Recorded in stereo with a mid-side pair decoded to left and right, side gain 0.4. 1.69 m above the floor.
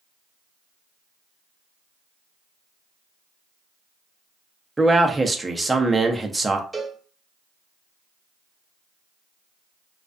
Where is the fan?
I don't hear a fan.